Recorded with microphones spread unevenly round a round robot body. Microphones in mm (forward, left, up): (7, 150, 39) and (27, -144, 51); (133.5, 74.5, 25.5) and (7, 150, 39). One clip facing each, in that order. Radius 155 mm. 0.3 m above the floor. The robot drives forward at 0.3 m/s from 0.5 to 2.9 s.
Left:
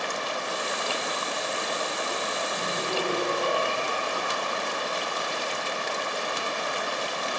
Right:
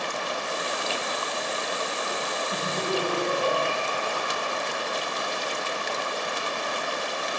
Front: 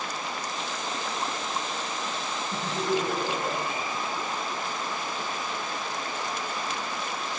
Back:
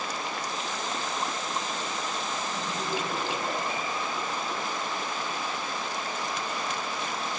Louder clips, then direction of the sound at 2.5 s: Right 4 dB, front 8 dB; 35° right.